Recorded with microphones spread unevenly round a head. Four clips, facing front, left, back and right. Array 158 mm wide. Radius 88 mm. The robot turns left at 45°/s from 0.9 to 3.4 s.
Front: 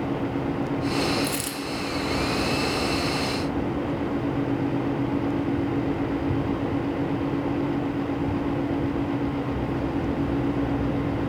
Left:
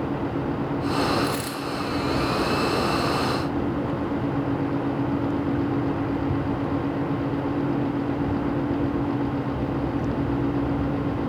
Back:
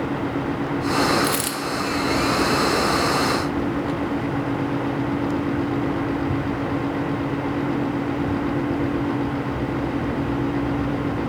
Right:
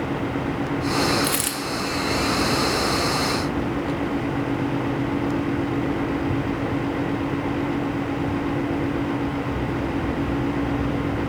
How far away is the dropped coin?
About 1.6 m.